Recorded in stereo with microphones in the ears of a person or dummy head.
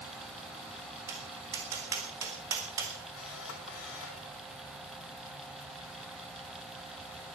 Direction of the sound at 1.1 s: 10° right (ahead or behind).